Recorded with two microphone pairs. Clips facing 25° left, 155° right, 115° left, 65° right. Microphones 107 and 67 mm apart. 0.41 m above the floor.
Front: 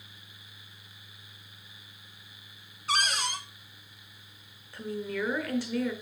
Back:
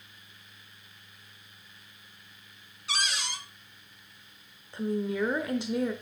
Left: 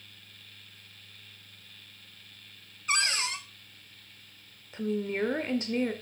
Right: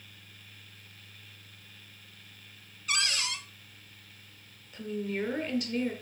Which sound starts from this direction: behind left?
A woman speaking, at 4.7 s.